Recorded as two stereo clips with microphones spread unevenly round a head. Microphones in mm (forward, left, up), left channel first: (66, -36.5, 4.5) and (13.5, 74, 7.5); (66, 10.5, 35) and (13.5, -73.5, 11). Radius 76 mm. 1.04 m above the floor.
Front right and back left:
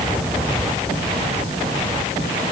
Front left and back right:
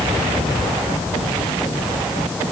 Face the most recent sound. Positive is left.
No sound to turn to.